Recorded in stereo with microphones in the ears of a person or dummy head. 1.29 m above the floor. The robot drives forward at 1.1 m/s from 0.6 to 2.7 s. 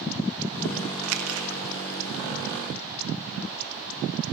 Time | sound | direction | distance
1.0 | crumpling | 75° right (ahead or behind) | 0.8 m